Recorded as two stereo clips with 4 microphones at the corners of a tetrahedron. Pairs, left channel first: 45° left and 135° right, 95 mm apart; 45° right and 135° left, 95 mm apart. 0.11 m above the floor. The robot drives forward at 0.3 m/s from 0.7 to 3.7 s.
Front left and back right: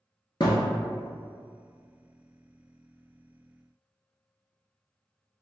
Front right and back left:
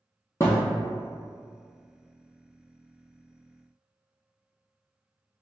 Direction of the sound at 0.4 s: 10° left.